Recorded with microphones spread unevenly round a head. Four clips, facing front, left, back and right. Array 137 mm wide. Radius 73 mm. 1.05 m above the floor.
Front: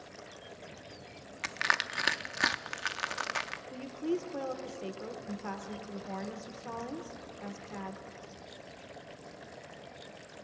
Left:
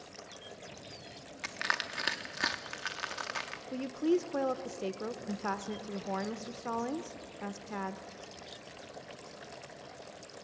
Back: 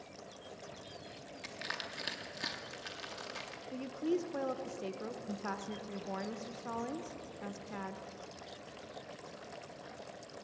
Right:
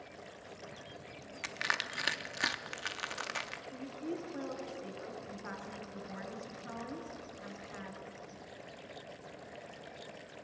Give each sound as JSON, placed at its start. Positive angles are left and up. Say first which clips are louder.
{"t": 1.4, "sound": "crushing", "louder": "left 2 dB, front 12 dB", "azimuth_deg": 30, "distance_m": 0.5}
{"t": 3.7, "sound": "a woman speaking", "louder": "left 12 dB, front 1 dB", "azimuth_deg": 75, "distance_m": 0.6}